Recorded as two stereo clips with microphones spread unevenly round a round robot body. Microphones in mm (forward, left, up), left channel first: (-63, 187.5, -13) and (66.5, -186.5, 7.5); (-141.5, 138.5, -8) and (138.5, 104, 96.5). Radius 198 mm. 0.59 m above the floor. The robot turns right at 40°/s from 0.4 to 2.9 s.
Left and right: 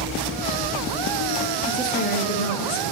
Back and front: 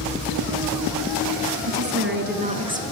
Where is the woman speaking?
25° left, 7.5 m; by 2.8 s 75° left, 7.5 m.